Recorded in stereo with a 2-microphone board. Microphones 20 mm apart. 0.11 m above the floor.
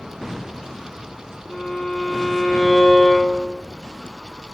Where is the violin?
55° left (ahead or behind), 3 m.